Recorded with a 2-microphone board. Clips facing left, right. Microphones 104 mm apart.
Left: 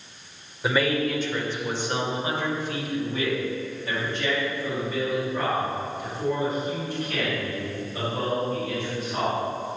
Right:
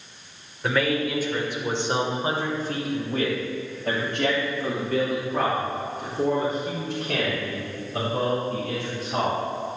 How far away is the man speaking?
About 2 m.